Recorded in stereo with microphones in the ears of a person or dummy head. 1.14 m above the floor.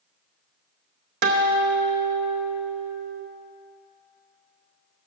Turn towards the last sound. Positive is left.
turn(degrees=-55)  # may be behind; listen again after turning